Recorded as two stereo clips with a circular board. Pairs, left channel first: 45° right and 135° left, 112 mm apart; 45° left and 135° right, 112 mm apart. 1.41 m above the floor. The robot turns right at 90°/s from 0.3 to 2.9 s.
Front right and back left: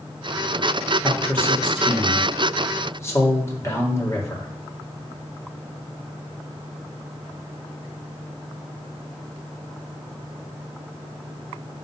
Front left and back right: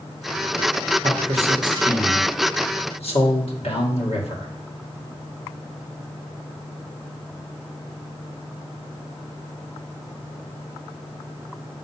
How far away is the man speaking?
About 1.8 m.